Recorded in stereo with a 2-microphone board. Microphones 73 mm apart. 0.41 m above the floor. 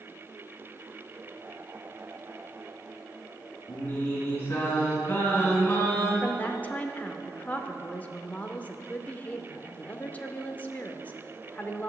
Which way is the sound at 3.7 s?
25° left (ahead or behind).